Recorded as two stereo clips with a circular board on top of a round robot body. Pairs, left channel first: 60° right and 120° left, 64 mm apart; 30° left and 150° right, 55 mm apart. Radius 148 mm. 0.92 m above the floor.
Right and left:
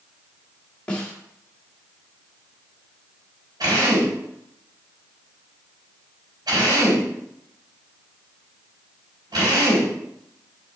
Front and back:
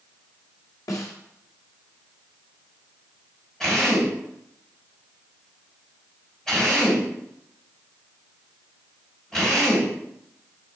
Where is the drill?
110° left, 3.5 m.